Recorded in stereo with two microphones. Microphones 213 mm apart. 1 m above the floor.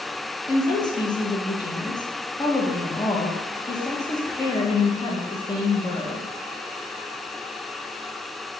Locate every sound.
0.5 s a woman speaking: 20° left (ahead or behind), 0.6 m